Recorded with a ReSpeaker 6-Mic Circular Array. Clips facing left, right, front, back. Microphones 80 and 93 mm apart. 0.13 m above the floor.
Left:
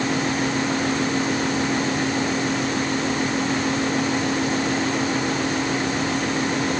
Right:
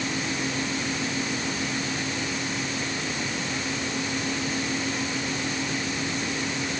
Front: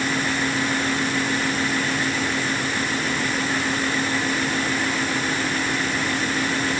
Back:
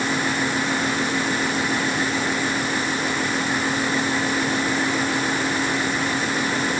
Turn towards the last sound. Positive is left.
No sound to turn to.